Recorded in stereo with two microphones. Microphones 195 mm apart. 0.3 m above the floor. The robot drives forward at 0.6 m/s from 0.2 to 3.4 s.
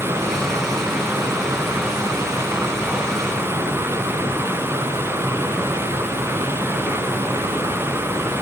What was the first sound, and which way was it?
Only background noise.